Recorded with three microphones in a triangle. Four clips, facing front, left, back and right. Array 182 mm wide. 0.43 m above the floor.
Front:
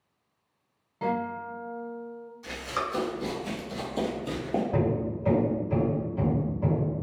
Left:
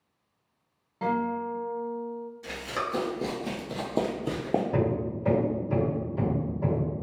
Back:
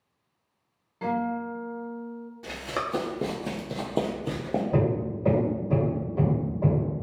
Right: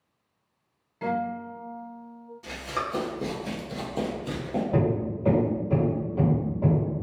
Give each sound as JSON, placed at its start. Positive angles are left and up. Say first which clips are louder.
{"t": 1.0, "sound": "a guitar", "louder": "left 1 dB, back 2 dB", "azimuth_deg": 70, "distance_m": 1.2}
{"t": 2.4, "sound": "running footsteps", "louder": "right 2 dB, even", "azimuth_deg": -175, "distance_m": 1.1}
{"t": 4.7, "sound": "hammering", "louder": "right 2 dB, back 1 dB", "azimuth_deg": -155, "distance_m": 1.5}